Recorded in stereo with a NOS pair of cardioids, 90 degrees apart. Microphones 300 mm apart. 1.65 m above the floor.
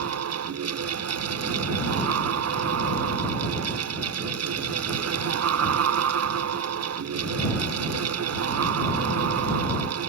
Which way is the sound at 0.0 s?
60° right.